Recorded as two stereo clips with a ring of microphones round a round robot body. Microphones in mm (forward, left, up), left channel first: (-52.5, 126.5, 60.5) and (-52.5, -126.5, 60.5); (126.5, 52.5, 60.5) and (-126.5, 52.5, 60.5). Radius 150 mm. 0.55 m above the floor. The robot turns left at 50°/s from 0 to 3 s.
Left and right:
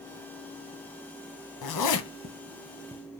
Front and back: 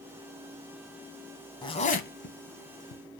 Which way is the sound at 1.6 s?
75° left.